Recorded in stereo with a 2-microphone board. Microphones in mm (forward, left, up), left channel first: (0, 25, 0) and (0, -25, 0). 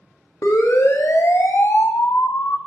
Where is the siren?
70° left (ahead or behind), 2 m; by 2.6 s 50° left (ahead or behind), 1.0 m.